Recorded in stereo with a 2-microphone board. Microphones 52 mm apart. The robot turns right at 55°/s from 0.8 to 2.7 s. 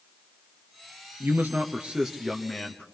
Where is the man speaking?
65° right, 1.7 m; by 2.9 s 20° left, 1.7 m.